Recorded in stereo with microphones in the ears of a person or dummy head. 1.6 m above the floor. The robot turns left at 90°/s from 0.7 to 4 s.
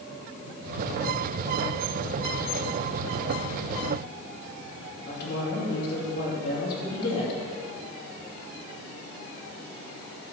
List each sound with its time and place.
5.1 s a woman speaking: 65° left (ahead or behind), 2.5 m